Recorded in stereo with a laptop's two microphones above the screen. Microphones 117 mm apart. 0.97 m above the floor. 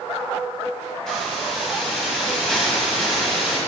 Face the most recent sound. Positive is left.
turn(degrees=5)  # may be behind; listen again after turning